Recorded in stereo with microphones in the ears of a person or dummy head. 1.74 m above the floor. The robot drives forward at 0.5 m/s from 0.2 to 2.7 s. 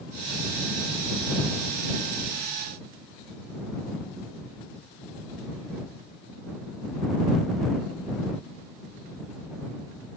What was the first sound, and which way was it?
Only background noise.